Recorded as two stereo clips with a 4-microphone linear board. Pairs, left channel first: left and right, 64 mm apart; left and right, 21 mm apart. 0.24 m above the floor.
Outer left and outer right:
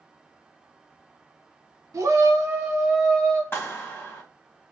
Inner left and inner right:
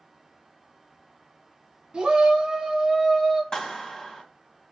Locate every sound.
1.9 s a shout: 50° right (ahead or behind), 1.9 m; by 3.4 s 20° left (ahead or behind), 1.4 m
3.5 s a clap: 35° left (ahead or behind), 1.2 m